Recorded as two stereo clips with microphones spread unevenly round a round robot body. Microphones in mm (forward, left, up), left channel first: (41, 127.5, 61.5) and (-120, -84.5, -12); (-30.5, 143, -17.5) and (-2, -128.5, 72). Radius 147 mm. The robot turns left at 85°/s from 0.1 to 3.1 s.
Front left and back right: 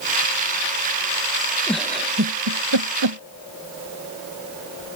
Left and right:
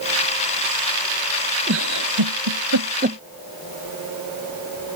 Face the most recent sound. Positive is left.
turn(degrees=-150)